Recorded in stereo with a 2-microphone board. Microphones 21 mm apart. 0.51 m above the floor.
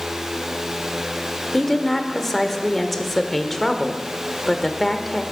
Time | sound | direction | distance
1.5 | a woman speaking | 10° left (ahead or behind) | 1.2 m